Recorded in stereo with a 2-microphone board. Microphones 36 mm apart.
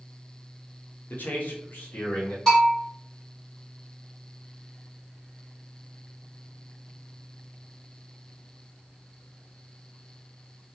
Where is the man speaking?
60° left (ahead or behind), 0.7 m; by 2.4 s 50° left (ahead or behind), 1.0 m.